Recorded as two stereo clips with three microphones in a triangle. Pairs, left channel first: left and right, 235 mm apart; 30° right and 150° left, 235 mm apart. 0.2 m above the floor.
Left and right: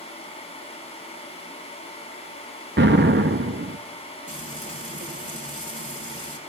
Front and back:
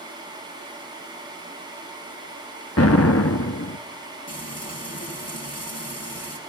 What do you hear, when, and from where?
2.8 s an explosion: 45° right, 0.8 m
4.3 s frying: 30° right, 3.5 m